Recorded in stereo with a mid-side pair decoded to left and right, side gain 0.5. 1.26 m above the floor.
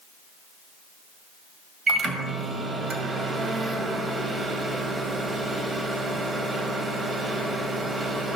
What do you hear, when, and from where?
1.9 s a microwave: 40° right, 1.6 m